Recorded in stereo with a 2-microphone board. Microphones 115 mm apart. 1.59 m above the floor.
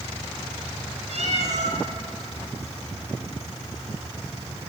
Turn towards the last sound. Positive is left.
turn(degrees=-70)  # may be behind; listen again after turning